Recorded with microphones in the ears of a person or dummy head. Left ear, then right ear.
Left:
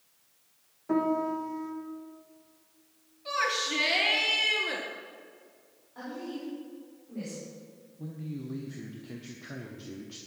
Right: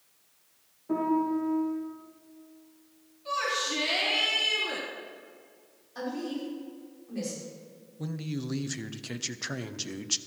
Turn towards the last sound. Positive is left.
turn(degrees=-70)  # may be behind; listen again after turning